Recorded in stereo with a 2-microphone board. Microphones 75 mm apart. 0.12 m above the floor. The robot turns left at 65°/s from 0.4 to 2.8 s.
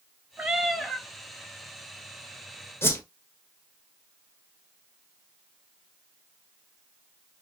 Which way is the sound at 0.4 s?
155° right.